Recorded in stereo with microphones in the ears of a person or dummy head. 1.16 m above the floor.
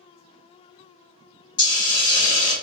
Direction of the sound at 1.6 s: 30° left (ahead or behind).